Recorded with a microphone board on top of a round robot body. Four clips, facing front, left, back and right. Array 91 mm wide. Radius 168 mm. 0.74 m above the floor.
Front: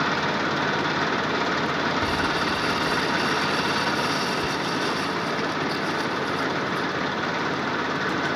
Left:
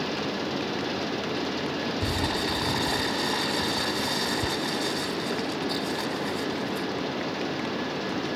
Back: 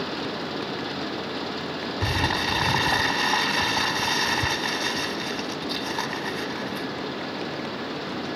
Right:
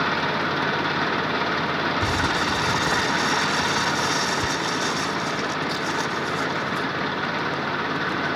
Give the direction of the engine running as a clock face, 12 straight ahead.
2 o'clock.